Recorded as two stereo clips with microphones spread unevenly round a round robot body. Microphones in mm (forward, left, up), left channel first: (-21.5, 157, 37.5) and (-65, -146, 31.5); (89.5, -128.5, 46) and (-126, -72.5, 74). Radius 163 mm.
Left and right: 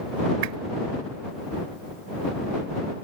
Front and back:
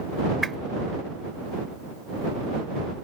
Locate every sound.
0.4 s a whoosh: 105° right